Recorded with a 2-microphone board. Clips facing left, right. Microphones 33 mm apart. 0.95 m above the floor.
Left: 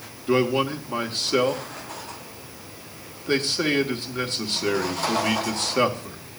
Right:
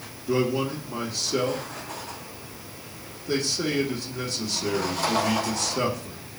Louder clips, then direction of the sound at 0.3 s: Left 3 dB; 45° left (ahead or behind).